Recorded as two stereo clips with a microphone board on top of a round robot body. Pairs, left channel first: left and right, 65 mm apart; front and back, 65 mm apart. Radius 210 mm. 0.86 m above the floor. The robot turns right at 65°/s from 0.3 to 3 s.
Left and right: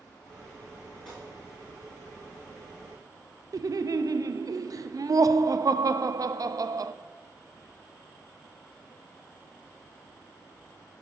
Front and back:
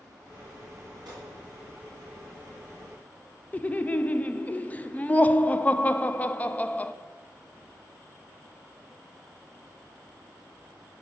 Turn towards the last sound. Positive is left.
turn(degrees=-65)